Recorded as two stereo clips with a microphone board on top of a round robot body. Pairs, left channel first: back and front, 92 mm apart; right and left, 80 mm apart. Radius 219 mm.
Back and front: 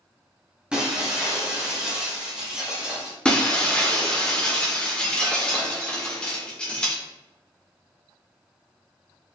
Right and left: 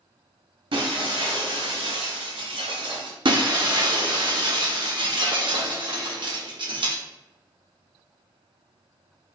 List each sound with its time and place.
0.7 s breaking glass: 80° left, 1.4 m
3.2 s breaking glass: 100° left, 1.6 m